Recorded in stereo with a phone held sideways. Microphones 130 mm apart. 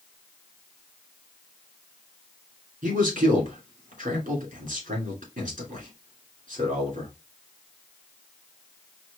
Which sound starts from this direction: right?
A man speaking, at 2.8 s.